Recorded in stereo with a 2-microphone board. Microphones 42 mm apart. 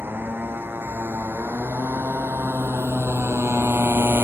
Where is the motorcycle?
60° right (ahead or behind); by 4.2 s 70° right (ahead or behind).